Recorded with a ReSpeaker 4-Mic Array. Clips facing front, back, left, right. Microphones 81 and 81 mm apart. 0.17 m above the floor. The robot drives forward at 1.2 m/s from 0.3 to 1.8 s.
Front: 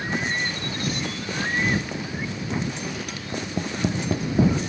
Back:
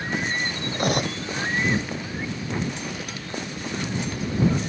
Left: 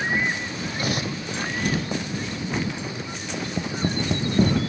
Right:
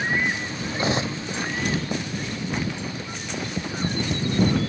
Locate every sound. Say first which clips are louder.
0.7 s cutlery clinking: back 9 dB, right 4 dB; 150° right; by 1.2 s 155° right
3.3 s tapping: front 2 dB, left 1 dB; 25° left